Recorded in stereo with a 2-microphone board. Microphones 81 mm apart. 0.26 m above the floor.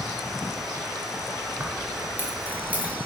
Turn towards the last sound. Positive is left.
turn(degrees=-20)  # may be behind; listen again after turning